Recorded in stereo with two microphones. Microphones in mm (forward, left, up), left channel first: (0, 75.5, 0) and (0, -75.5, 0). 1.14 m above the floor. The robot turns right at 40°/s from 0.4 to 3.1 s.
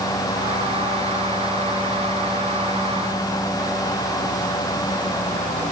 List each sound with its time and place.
Only background noise.